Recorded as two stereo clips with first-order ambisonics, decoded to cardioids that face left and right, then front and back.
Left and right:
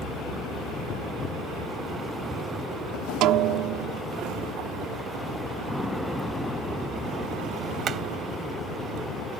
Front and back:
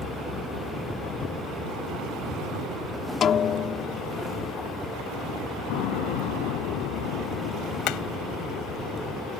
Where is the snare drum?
60° right.